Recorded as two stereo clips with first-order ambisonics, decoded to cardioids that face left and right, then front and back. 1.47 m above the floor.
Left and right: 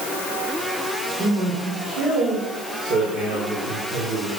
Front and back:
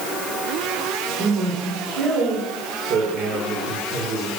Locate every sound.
1.2 s a man speaking: 140° right, 4 m